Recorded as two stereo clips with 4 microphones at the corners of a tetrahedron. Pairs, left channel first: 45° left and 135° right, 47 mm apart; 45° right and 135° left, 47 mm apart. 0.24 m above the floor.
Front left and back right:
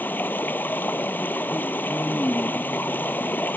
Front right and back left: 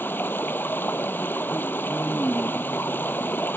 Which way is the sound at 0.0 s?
Straight ahead.